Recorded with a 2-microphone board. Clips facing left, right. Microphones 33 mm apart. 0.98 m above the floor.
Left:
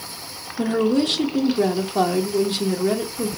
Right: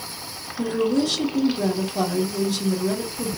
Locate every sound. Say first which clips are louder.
0.6 s a woman speaking: left 2 dB; 40° left (ahead or behind), 1.0 m